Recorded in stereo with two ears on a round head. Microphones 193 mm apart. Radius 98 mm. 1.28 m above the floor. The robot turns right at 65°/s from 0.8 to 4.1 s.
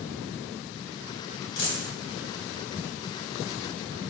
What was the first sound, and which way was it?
A dropped coin, 70° left (ahead or behind).